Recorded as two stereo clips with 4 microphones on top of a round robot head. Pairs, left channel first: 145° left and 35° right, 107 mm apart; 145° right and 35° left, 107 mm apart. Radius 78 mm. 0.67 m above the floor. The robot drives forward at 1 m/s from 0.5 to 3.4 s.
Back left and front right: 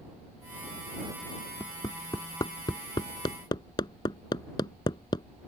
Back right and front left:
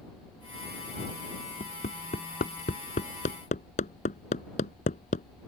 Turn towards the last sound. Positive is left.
turn(degrees=-160)